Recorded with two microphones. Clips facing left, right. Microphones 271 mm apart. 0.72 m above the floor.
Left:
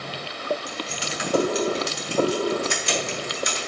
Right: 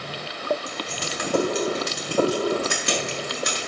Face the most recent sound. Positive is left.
turn(degrees=-65)  # may be behind; listen again after turning